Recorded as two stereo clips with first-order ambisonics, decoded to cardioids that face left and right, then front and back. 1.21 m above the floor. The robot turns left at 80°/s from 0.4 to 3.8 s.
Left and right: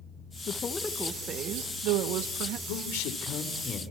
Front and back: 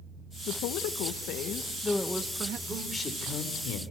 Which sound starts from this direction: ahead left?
A woman speaking, at 0.5 s.